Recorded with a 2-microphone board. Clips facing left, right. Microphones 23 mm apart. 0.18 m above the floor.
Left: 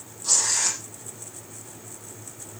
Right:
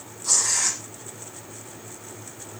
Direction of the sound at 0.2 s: 10° left (ahead or behind).